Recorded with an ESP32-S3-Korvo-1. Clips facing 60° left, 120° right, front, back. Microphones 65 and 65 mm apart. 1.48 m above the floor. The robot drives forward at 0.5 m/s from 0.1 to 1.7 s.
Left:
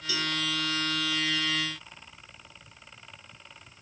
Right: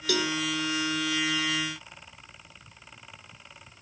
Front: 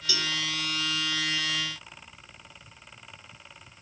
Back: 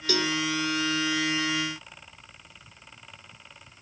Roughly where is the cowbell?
Behind right.